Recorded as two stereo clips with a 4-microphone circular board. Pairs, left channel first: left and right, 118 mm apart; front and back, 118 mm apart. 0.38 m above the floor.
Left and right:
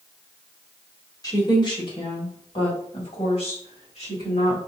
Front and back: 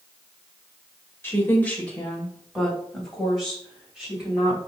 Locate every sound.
1.2 s a woman speaking: 55° left, 1.3 m; by 4.6 s 100° left, 3 m